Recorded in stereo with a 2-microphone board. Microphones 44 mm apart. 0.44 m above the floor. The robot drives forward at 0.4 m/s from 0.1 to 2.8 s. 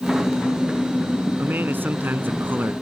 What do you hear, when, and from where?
1.4 s a man speaking: 50° right (ahead or behind)